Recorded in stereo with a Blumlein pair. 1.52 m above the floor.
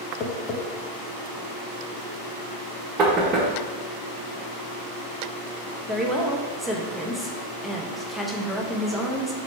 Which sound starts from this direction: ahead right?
Knocking, at 3.0 s.